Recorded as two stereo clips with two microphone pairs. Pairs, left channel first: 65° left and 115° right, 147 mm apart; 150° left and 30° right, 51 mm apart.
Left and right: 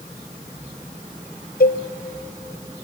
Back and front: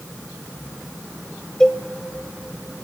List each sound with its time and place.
1.6 s a cowbell: 70° left, 0.9 m